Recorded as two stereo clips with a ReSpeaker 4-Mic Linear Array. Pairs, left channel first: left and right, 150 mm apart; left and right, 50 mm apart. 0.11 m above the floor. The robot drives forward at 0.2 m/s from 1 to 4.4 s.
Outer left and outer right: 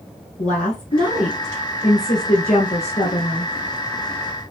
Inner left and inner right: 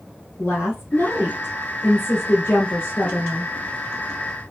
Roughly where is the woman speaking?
Left.